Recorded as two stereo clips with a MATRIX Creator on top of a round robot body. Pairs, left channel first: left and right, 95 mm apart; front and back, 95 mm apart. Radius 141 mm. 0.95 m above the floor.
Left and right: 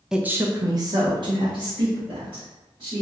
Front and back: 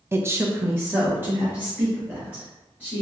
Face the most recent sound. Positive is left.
turn(degrees=-110)